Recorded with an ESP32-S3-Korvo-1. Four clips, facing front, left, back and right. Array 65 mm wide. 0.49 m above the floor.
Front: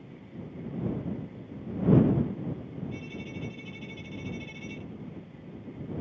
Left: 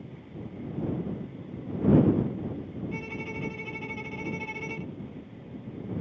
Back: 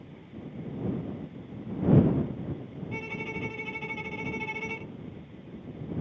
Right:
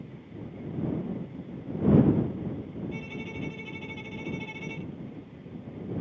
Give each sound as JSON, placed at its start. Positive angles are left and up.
{"t": 2.9, "sound": "a violin", "azimuth_deg": 160}